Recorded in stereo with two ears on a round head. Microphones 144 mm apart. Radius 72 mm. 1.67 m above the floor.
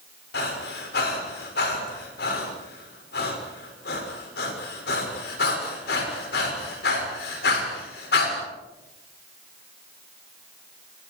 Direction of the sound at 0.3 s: 75° left (ahead or behind).